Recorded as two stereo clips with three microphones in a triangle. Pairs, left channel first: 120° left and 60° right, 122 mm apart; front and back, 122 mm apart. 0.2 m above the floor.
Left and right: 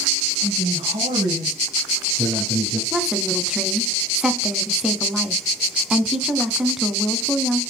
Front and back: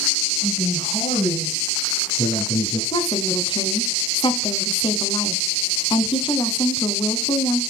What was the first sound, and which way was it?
A man speaking, 25° right.